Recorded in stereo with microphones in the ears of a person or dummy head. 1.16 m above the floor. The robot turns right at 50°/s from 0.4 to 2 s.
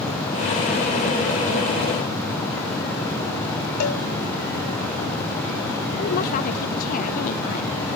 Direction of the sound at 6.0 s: 55° left (ahead or behind).